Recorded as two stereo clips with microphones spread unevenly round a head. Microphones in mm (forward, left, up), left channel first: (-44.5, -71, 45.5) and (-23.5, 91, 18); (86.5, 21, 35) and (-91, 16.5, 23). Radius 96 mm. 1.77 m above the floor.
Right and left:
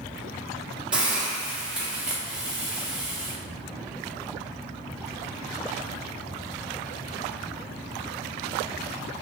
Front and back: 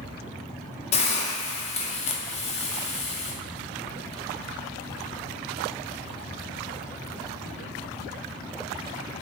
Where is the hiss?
15° right, 0.5 m.